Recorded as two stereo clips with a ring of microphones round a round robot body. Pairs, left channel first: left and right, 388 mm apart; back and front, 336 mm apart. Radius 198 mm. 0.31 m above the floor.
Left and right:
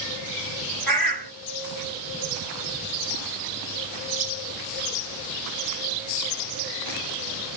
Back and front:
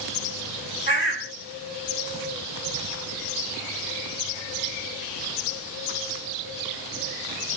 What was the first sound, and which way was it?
A bird, 5° left.